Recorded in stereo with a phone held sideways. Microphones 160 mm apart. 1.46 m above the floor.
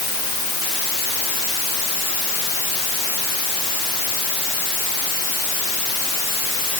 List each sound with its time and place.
Only background noise.